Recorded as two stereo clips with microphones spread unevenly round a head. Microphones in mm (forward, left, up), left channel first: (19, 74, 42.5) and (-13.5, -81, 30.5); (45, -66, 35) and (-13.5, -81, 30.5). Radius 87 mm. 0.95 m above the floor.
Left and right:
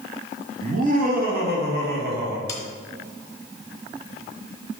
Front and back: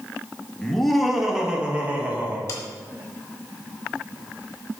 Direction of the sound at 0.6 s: 65° right.